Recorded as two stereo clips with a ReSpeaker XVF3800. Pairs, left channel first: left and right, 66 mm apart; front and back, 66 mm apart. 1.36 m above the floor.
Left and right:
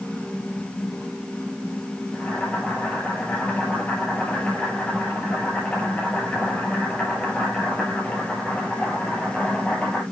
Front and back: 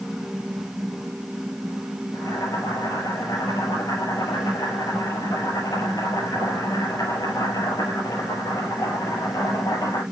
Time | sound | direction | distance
2.1 | boiling | 25° left | 7.5 m